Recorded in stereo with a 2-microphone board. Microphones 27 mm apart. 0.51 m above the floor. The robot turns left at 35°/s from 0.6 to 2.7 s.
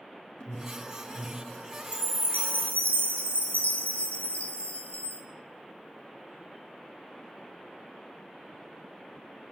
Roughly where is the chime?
Left.